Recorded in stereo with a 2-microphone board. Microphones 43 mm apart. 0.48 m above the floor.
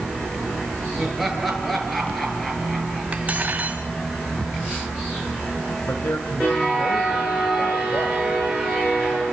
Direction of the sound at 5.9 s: 65° left (ahead or behind).